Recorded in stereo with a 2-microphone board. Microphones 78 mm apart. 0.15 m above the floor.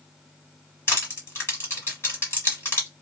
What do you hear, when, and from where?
0.9 s crushing: 30° left (ahead or behind), 1.8 m